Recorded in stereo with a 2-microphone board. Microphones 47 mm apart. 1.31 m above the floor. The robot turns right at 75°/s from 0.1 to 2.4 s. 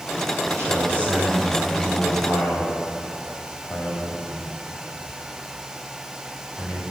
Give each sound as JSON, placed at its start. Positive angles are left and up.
{"t": 0.5, "sound": "a man speaking", "side_deg": -85, "distance_m": 9.5}